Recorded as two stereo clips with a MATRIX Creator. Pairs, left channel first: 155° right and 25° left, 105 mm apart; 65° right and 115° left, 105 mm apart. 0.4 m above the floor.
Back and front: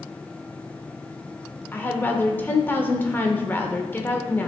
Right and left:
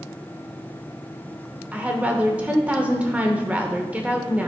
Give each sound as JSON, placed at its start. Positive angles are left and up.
{"t": 1.7, "sound": "a woman speaking", "azimuth_deg": 170, "distance_m": 0.8}